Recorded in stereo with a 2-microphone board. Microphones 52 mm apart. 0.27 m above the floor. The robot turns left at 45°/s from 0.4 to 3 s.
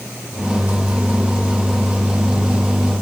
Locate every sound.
Only background noise.